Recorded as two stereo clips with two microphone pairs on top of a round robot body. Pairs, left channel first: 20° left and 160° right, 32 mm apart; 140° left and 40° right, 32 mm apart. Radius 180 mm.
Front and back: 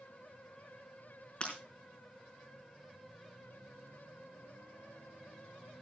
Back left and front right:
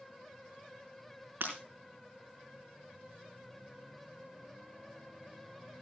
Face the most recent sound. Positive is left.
turn(degrees=-35)